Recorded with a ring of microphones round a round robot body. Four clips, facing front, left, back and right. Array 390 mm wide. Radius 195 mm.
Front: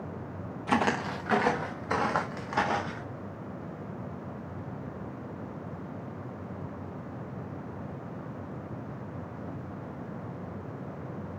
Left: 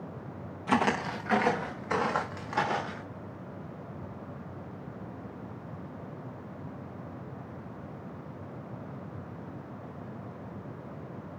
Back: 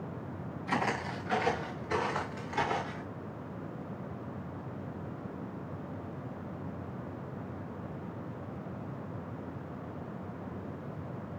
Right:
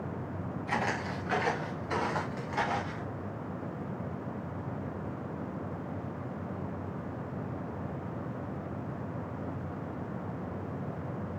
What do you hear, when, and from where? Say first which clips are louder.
0.7 s footsteps: left 6 dB, front 5 dB; 45° left, 1.9 m; by 3.0 s 20° left, 4.5 m